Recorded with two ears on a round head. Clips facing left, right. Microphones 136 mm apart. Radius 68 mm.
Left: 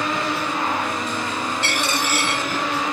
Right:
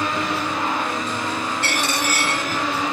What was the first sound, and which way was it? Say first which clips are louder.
A dropped coin: even; 10° right (ahead or behind).